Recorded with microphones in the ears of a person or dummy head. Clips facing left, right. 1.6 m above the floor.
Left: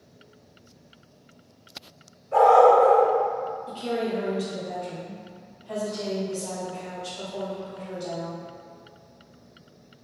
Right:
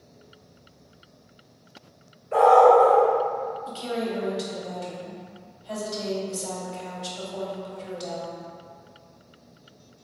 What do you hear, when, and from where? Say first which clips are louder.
2.3 s a dog barking: even; 40° right (ahead or behind), 1.9 m
3.7 s a woman speaking: left 3 dB; 65° right (ahead or behind), 1.3 m